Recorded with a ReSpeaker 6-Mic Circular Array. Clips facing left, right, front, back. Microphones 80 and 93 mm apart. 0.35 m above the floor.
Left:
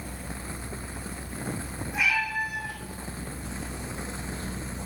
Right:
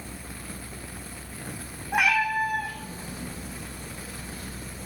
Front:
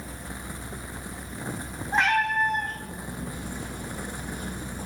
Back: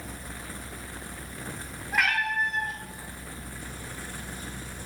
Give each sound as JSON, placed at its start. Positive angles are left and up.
{"t": 1.9, "sound": "a cat meowing", "azimuth_deg": -60, "distance_m": 2.0}